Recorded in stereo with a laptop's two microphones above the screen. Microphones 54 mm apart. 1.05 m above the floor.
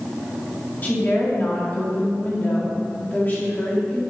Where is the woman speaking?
30° left (ahead or behind), 1.8 m.